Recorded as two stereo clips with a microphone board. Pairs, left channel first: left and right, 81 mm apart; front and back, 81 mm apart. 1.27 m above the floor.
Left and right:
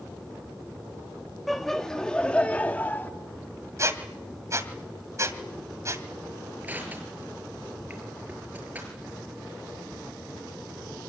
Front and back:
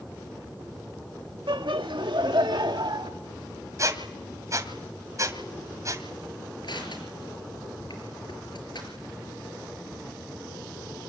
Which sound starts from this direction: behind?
Laughter, at 1.5 s.